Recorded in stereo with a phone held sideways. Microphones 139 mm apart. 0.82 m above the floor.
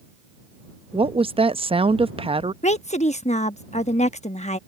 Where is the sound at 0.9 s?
40° right (ahead or behind).